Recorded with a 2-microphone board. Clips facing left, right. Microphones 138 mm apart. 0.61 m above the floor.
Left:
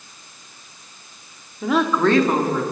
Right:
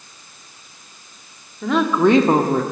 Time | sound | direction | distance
1.6 | a woman speaking | 5° left (ahead or behind) | 1.5 m